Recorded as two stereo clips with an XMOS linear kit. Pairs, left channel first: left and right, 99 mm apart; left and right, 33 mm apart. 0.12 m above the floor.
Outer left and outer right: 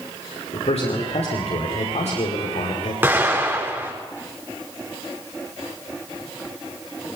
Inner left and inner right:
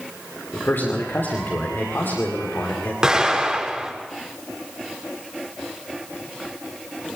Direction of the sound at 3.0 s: 20° right (ahead or behind).